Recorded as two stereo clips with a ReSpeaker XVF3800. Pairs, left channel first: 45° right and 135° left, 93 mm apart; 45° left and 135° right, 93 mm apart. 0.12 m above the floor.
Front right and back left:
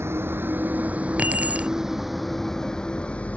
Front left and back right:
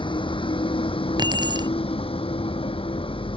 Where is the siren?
I don't hear a siren.